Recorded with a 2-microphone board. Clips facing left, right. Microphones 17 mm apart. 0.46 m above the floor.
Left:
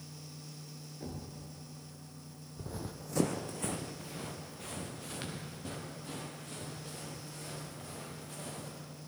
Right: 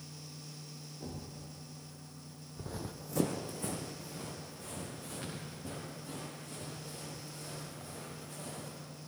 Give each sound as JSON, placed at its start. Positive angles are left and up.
{"t": 1.0, "sound": "a thud", "side_deg": 80, "distance_m": 2.5}
{"t": 2.6, "sound": "running footsteps", "side_deg": -25, "distance_m": 0.7}